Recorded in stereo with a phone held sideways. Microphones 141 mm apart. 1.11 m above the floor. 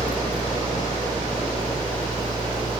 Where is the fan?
35° right (ahead or behind).